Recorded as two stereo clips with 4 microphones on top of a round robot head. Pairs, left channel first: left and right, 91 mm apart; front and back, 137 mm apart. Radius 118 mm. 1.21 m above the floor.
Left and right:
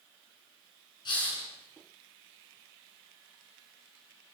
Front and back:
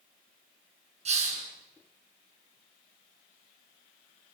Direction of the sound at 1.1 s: 140° left.